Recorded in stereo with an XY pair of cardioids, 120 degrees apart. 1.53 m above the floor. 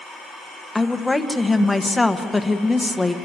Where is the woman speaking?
5° left, 1.3 m.